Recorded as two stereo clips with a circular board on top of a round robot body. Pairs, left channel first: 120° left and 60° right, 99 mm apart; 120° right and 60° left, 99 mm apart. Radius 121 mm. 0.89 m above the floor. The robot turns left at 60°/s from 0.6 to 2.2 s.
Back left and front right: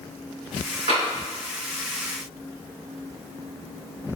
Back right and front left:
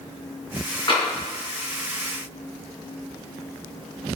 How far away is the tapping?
About 3.5 m.